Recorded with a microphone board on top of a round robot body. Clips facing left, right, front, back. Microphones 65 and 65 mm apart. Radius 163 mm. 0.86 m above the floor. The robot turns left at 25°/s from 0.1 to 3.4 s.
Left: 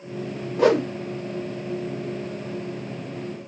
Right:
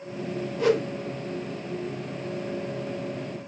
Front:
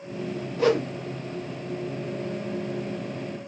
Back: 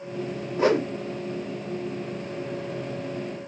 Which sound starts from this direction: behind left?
A whoosh, at 0.6 s.